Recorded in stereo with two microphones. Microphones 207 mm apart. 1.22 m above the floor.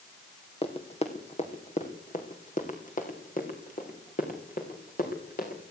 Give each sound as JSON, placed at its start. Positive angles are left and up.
{"t": 0.6, "sound": "running footsteps", "side_deg": 30, "distance_m": 3.0}